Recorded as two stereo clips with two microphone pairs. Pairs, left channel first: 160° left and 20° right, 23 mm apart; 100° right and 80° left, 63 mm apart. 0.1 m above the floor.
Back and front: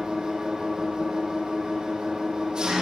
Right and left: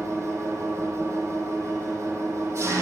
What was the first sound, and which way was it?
An engine running, 35° left.